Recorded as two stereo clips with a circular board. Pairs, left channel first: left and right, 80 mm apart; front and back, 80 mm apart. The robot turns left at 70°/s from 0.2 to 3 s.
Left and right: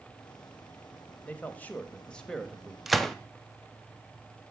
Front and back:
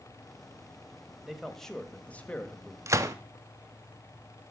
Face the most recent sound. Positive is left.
turn(degrees=175)